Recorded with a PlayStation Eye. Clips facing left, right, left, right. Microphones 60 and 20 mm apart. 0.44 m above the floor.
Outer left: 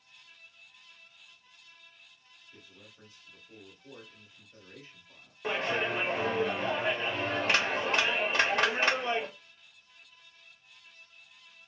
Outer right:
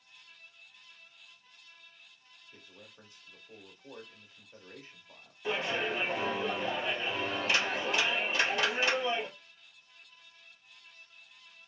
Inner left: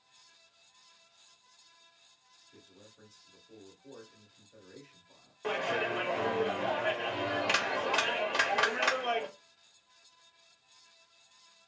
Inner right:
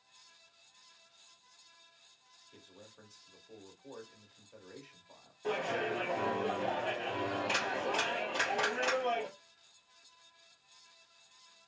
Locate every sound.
2.5 s a man speaking: 30° right (ahead or behind), 1.1 m
5.4 s a clap: 50° left (ahead or behind), 1.1 m